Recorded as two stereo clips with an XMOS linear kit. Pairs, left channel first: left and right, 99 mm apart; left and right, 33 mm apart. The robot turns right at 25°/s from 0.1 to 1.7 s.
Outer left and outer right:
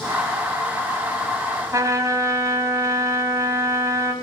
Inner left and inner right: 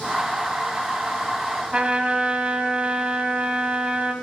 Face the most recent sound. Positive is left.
turn(degrees=-30)  # may be behind; listen again after turning